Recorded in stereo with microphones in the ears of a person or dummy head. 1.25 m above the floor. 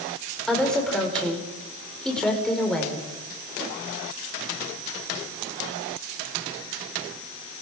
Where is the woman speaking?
5° left (ahead or behind), 5 m.